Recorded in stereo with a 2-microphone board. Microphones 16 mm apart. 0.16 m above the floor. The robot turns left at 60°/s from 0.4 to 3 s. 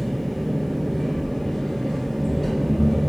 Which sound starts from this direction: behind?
An engine running, at 0.0 s.